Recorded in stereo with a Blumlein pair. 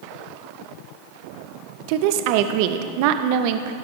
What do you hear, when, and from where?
1.9 s a woman speaking: 45° right, 0.5 m